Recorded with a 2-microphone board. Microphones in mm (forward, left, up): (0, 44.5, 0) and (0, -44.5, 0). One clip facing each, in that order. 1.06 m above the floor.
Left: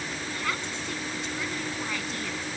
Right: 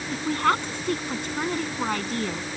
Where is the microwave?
I don't hear a microwave.